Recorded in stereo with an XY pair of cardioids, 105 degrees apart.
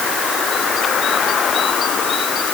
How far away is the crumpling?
No crumpling in this recording.